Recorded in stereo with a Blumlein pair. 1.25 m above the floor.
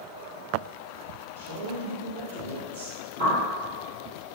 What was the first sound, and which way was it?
A man speaking, 65° right.